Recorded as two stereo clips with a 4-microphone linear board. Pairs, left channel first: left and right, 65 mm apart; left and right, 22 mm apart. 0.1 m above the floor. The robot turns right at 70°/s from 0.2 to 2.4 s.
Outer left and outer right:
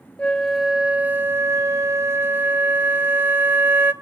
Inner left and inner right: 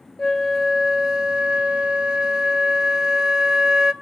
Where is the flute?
160° left, 0.6 m; by 3.9 s 45° right, 0.6 m.